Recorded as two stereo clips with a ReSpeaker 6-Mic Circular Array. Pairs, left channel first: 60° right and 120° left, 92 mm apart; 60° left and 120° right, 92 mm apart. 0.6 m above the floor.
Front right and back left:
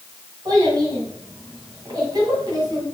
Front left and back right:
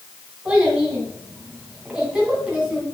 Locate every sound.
0.5 s a child speaking: 160° left, 2.5 m